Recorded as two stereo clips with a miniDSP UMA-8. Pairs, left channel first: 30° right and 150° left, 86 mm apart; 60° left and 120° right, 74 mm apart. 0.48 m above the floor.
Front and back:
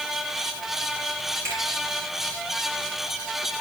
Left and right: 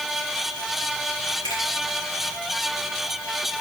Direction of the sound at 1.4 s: 90° left.